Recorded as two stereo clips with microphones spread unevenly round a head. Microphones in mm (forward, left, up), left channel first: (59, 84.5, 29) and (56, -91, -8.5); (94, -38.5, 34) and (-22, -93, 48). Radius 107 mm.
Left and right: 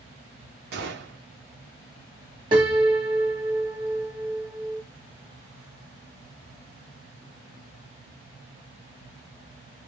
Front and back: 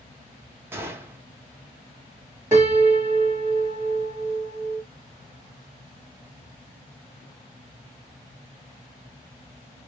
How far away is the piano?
About 1.0 m.